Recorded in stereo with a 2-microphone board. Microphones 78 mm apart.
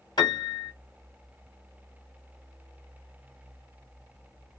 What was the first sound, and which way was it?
A piano, 70° left (ahead or behind).